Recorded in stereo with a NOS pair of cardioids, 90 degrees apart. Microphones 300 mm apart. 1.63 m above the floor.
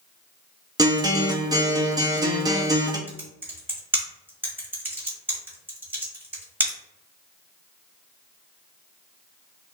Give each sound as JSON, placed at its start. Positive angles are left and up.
{"t": 0.8, "sound": "a guitar", "azimuth_deg": -10, "distance_m": 0.7}
{"t": 3.1, "sound": "typing on a keyboard", "azimuth_deg": -5, "distance_m": 1.4}